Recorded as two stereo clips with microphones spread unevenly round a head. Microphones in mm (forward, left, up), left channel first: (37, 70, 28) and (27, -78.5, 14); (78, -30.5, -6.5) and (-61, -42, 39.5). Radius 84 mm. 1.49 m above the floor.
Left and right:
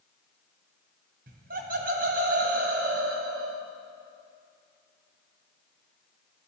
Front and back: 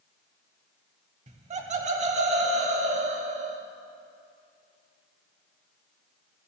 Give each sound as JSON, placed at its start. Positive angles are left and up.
{"t": 1.3, "sound": "laughter", "azimuth_deg": -135, "distance_m": 1.1}